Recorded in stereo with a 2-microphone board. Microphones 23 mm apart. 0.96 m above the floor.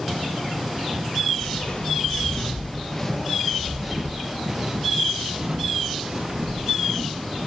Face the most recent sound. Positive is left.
turn(degrees=-50)  # may be behind; listen again after turning